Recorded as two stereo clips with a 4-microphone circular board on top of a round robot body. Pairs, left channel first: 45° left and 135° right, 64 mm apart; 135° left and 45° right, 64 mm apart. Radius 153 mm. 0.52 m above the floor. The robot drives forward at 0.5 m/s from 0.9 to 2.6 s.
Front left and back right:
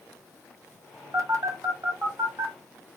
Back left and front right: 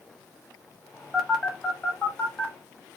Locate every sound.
1.1 s a phone buzzing: 140° right, 1.1 m; by 2.5 s 155° right, 1.6 m